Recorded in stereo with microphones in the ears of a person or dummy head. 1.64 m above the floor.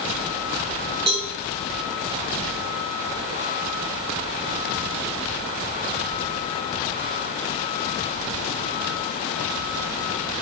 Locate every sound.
1.1 s a cowbell: 25° right (ahead or behind), 1.9 m